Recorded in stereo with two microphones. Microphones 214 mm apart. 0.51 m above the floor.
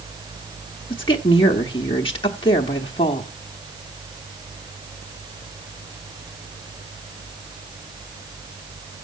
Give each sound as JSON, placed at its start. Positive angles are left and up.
{"t": 0.9, "sound": "a woman speaking", "side_deg": 25, "distance_m": 1.0}